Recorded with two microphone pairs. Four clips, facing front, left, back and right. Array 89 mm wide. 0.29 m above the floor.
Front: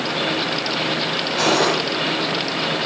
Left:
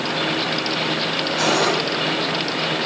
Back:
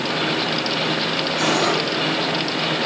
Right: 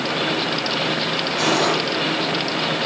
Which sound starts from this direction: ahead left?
Cutlery clinking, at 1.4 s.